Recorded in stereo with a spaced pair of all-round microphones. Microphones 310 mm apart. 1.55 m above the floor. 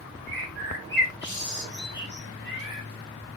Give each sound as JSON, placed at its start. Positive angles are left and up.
{"t": 0.3, "sound": "a bird", "side_deg": 35, "distance_m": 4.5}